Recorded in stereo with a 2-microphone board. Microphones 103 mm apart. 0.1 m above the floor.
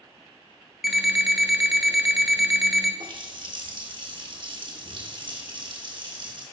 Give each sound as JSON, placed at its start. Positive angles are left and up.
{"t": 0.8, "sound": "an alarm clock", "side_deg": -5, "distance_m": 1.1}
{"t": 3.0, "sound": "a running tap", "side_deg": -55, "distance_m": 1.5}